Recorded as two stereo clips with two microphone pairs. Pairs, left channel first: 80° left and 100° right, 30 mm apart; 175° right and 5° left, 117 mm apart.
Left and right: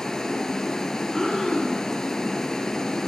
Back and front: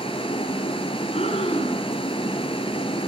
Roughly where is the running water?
Behind left.